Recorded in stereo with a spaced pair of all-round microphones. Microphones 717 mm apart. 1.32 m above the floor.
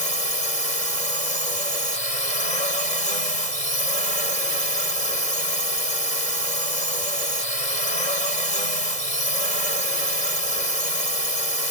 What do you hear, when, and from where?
0.0 s a drone: 80° left